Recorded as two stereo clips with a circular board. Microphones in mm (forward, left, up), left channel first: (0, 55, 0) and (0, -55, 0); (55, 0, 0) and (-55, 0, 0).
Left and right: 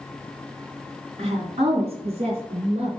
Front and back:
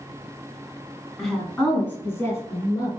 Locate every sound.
1.2 s a woman speaking: 90° right, 2.0 m; by 2.9 s 60° right, 3 m